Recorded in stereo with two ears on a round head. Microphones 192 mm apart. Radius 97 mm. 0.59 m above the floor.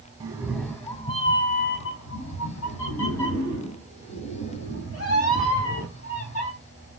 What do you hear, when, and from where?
0.2 s a cat meowing: 20° right (ahead or behind), 0.6 m; by 6.5 s 80° left, 3 m